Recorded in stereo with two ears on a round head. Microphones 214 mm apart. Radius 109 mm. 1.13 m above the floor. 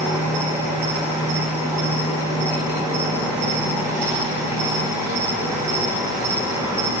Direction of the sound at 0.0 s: 15° right (ahead or behind).